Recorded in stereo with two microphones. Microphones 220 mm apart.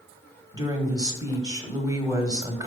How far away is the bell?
I don't hear a bell.